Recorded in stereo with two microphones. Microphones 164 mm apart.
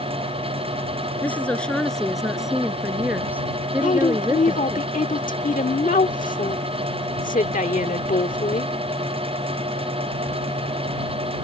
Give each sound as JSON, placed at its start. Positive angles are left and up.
{"t": 1.2, "sound": "a woman speaking", "side_deg": 10}
{"t": 3.8, "sound": "a woman speaking", "side_deg": 50}